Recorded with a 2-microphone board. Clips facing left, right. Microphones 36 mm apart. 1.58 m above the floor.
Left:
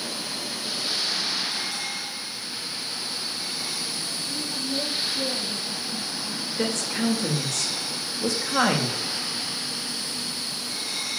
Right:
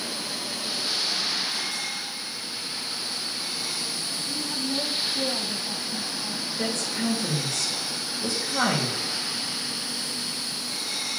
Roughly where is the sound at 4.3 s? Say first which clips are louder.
Right 1 dB; right.